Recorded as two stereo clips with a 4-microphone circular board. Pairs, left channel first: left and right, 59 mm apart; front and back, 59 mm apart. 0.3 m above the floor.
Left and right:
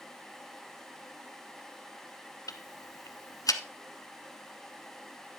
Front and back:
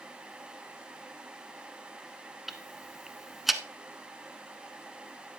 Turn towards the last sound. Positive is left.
turn(degrees=90)